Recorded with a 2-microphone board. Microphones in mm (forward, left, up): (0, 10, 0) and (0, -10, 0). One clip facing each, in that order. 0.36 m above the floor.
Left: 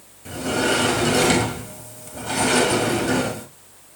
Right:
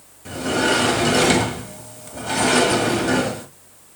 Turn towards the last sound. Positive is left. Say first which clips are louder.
# right 2 dB
turn(degrees=-5)  # may be behind; listen again after turning